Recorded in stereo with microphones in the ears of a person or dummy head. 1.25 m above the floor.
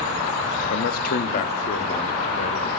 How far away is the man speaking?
About 2 m.